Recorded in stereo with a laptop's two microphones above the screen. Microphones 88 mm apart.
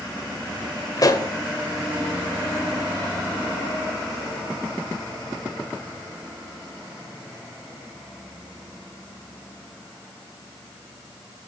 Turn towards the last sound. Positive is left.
turn(degrees=45)  # may be behind; listen again after turning